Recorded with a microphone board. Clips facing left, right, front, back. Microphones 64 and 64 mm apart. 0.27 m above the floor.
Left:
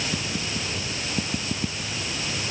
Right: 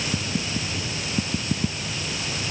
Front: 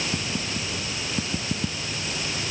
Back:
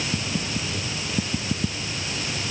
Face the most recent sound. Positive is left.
No sound to turn to.